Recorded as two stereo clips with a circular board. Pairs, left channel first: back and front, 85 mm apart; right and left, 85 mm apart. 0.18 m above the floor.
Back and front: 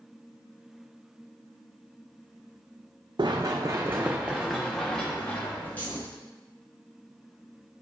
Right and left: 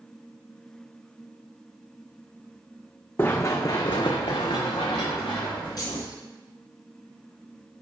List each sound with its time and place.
3.2 s running footsteps: 25° right, 0.6 m; by 6.0 s 115° right, 1.3 m
5.8 s keys jangling: 115° right, 1.5 m